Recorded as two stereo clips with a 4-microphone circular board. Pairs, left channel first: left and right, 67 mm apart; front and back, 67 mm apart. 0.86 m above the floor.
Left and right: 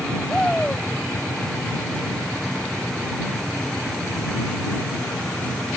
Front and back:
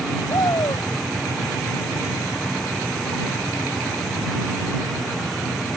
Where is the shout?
10° left.